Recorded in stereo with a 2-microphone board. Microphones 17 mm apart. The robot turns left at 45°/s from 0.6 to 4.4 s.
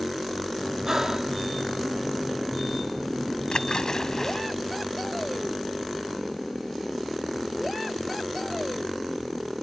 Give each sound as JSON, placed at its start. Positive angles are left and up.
{"t": 0.8, "sound": "breathing", "side_deg": -30}
{"t": 3.5, "sound": "a splash", "side_deg": 60}